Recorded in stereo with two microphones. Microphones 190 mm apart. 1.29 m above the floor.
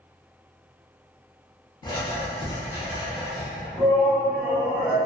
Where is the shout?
5° left (ahead or behind), 1.6 m.